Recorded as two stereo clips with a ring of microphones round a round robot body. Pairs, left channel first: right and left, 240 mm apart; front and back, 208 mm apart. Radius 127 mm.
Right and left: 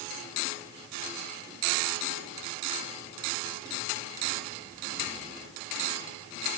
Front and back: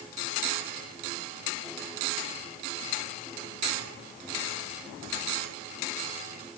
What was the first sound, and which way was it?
Only background noise.